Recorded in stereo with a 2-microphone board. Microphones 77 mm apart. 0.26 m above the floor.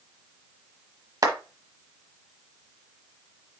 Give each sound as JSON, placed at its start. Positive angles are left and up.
{"t": 1.2, "sound": "a clap", "side_deg": -45, "distance_m": 1.1}